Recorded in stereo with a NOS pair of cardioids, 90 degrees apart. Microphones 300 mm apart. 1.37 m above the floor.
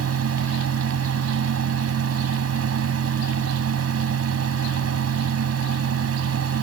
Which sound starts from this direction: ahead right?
A fan, at 0.0 s.